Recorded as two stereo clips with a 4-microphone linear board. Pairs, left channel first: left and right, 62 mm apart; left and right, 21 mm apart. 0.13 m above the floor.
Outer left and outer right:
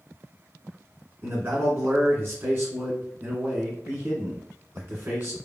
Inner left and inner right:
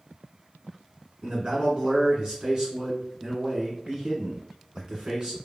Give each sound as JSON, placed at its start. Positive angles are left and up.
{"t": 1.2, "sound": "a man speaking", "side_deg": -30, "distance_m": 1.6}